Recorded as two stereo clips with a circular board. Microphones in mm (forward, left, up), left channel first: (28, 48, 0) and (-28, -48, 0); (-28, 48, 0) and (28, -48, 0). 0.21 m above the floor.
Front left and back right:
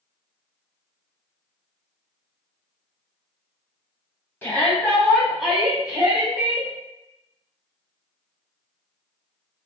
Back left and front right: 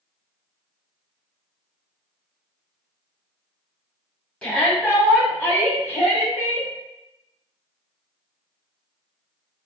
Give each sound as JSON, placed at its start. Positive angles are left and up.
{"t": 4.4, "sound": "a shout", "azimuth_deg": 65, "distance_m": 1.2}